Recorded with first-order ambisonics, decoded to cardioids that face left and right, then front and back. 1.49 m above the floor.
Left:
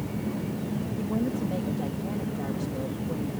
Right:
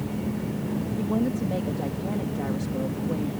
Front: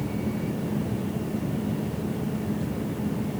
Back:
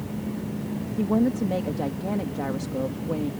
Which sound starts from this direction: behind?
A woman speaking, at 1.0 s.